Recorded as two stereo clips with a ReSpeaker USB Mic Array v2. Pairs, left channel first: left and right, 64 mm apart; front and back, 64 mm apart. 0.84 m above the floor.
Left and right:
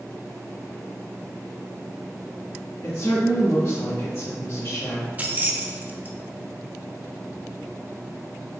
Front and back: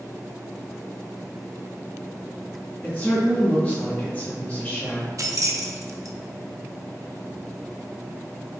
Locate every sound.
2.8 s a woman speaking: 60° left, 1.3 m
5.2 s keys jangling: 150° right, 0.8 m